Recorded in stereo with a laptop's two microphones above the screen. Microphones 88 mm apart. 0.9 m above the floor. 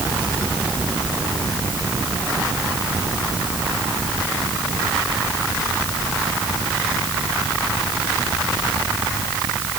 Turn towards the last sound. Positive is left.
No sound to turn to.